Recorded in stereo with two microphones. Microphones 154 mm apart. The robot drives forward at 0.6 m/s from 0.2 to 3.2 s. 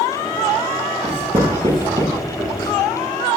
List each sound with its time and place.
1.0 s writing: 40° right (ahead or behind), 1.0 m; by 2.7 s 20° right (ahead or behind), 1.6 m